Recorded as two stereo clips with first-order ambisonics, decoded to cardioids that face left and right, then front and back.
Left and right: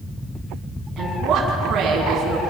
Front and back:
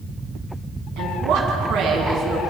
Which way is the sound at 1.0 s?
150° right.